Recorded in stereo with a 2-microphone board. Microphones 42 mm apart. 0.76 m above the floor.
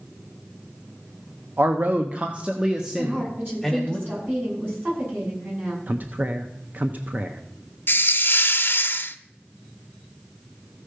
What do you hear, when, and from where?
1.6 s a man speaking: 55° right (ahead or behind), 0.8 m; by 4.0 s centre (ahead or behind), 1.8 m
3.0 s a woman speaking: 55° right (ahead or behind), 8 m
5.9 s a man speaking: 45° right (ahead or behind), 0.7 m
7.9 s a hiss: 60° left (ahead or behind), 0.7 m